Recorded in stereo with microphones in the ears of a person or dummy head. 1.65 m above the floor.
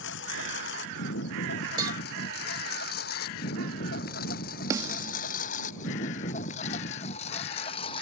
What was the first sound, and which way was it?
A lawn mower, 75° left (ahead or behind).